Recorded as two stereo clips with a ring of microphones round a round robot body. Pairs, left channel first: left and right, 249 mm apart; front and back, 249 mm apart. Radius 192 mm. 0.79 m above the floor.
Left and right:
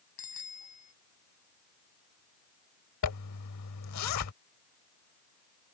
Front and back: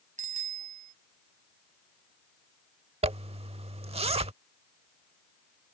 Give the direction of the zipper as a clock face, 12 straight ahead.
8 o'clock.